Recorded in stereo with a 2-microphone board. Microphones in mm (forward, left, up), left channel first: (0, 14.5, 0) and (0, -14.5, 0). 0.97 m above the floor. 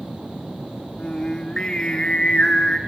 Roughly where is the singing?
Left.